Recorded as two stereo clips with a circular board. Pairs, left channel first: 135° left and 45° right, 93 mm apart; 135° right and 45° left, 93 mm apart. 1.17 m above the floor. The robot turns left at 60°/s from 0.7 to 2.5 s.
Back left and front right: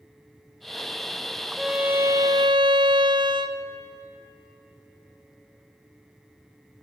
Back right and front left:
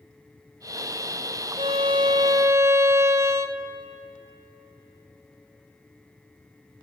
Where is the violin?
45° left, 0.5 m; by 3.6 s 15° right, 0.5 m.